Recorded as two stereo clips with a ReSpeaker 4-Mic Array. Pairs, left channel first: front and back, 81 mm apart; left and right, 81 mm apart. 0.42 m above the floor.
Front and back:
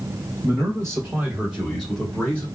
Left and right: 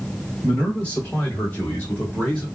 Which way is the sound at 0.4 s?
155° left.